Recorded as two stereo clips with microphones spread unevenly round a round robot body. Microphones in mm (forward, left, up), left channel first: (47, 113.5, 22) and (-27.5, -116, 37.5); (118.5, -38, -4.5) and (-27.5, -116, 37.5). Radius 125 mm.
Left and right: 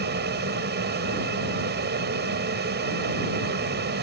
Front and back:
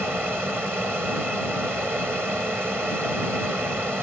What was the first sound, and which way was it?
An aircraft, 65° right.